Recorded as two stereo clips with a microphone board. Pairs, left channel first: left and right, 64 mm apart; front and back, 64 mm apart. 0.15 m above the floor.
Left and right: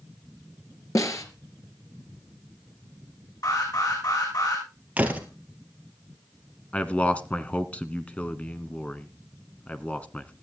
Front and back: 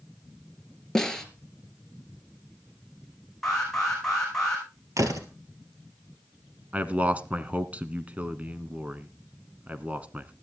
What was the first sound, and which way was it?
A snare drum, 80° left.